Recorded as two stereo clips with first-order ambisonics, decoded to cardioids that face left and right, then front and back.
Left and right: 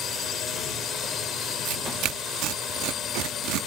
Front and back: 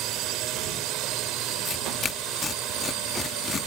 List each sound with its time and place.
0.0 s a drone: 150° left
1.6 s tearing paper: 70° right